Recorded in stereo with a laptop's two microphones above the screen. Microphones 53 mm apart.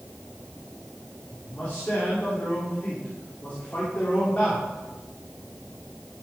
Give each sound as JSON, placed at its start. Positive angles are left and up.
{"t": 1.4, "sound": "a man speaking", "side_deg": 30, "distance_m": 3.0}